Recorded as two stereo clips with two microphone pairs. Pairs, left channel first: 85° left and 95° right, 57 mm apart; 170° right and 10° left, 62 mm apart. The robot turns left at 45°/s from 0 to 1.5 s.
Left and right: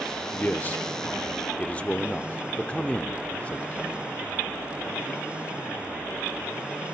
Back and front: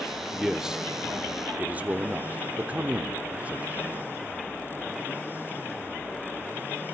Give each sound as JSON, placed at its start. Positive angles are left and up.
{"t": 0.3, "sound": "a man speaking", "azimuth_deg": 95, "distance_m": 0.8}